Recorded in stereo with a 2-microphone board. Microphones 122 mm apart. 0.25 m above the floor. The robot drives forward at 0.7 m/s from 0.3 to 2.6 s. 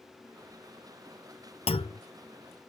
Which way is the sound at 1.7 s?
55° left (ahead or behind).